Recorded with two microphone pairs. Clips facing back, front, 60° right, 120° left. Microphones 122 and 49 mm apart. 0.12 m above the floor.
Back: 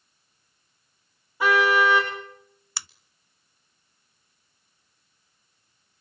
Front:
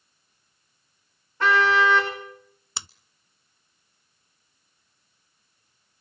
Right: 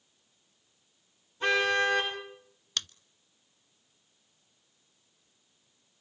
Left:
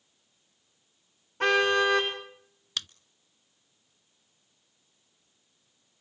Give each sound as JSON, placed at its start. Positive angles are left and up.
{"t": 1.4, "sound": "a car horn", "azimuth_deg": 100, "distance_m": 8.5}
{"t": 2.8, "sound": "scissors", "azimuth_deg": 35, "distance_m": 0.5}